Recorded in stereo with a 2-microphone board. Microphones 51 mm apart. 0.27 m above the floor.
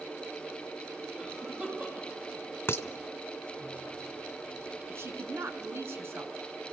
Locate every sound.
1.2 s a cough: 30° right (ahead or behind), 9 m
2.7 s dishes clattering: 50° left (ahead or behind), 1.3 m
4.9 s a woman speaking: 50° right (ahead or behind), 3 m